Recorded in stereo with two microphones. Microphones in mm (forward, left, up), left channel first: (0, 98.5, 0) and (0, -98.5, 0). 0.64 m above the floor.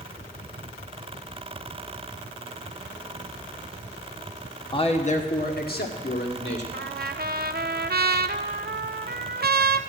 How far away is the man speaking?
About 1.0 m.